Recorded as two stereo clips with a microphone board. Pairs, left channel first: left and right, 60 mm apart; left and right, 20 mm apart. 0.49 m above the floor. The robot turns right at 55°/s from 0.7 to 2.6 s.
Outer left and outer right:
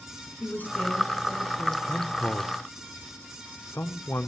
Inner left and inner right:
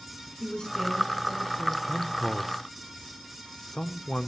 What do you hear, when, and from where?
0.4 s a woman speaking: 150° left, 5 m; by 1.8 s 150° right, 5 m
1.9 s a man speaking: 25° left, 1.0 m; by 4.3 s 65° left, 1.0 m